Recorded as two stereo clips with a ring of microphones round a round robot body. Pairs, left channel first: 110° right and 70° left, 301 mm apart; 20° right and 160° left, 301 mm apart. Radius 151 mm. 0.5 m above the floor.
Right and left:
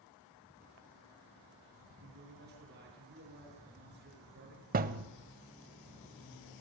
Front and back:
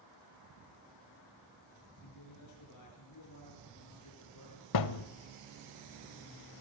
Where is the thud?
5° left, 0.9 m.